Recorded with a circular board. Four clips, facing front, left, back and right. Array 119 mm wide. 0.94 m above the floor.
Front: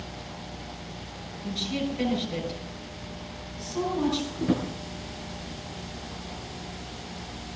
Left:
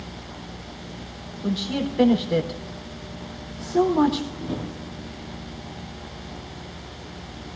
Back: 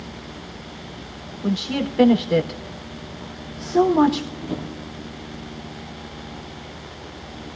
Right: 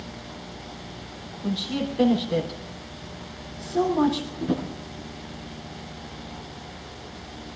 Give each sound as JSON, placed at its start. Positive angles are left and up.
{"t": 1.4, "sound": "a woman speaking", "azimuth_deg": 160, "distance_m": 3.5}
{"t": 4.4, "sound": "a drawer", "azimuth_deg": -20, "distance_m": 8.5}